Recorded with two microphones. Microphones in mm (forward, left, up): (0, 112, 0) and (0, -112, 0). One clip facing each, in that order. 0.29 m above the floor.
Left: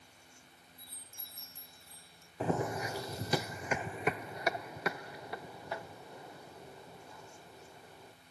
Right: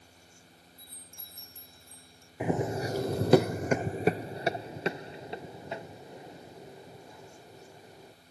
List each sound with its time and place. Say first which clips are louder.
0.8 s a chime: right 3 dB; 5° left (ahead or behind)
2.4 s running footsteps: right 4 dB; 15° right (ahead or behind); by 8.1 s 20° right (ahead or behind)